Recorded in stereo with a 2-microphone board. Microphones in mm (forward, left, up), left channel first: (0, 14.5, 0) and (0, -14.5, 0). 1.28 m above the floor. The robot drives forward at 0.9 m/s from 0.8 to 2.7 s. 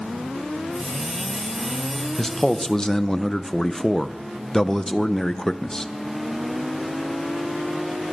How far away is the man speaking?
About 1.1 m.